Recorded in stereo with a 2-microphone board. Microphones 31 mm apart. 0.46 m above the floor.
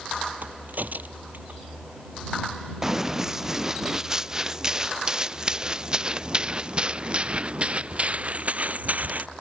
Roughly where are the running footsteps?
Centre.